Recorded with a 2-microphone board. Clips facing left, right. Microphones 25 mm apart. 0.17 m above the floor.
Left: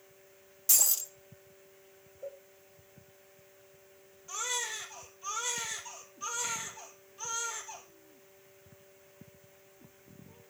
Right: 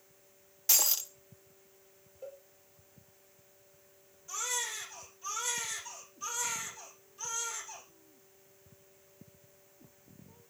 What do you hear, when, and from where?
0.7 s breaking glass: 30° right (ahead or behind), 0.8 m
2.2 s a cowbell: 30° right (ahead or behind), 5.5 m
4.3 s a baby crying: 15° left (ahead or behind), 2.5 m